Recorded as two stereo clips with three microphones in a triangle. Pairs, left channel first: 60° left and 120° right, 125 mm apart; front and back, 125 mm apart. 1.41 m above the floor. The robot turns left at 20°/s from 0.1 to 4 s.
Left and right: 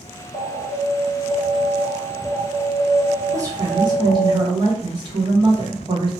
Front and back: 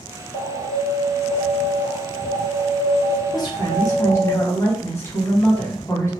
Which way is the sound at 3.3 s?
55° right.